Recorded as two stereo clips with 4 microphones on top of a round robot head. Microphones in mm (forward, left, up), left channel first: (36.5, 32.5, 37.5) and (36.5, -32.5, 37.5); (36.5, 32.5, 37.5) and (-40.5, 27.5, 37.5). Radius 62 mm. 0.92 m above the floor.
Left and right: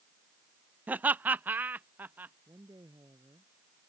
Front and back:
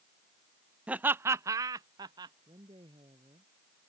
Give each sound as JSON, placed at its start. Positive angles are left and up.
{"t": 0.9, "sound": "laughter", "azimuth_deg": -120}
{"t": 2.5, "sound": "a woman speaking", "azimuth_deg": -140}